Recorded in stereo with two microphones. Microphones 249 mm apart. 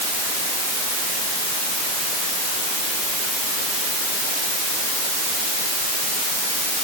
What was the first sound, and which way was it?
Only background noise.